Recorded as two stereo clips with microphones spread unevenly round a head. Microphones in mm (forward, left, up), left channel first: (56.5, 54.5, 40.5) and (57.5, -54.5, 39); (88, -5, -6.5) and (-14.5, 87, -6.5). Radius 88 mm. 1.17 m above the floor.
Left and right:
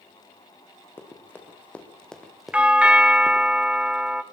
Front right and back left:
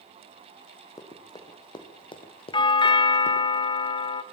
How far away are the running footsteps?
About 4 m.